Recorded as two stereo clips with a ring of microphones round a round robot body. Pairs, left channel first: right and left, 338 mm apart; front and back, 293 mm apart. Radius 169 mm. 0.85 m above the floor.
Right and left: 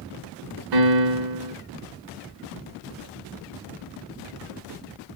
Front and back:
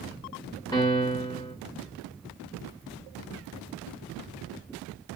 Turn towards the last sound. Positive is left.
turn(degrees=75)